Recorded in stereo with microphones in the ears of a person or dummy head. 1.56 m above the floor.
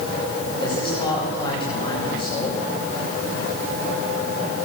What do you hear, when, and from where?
0.6 s a man speaking: 25° left (ahead or behind), 9 m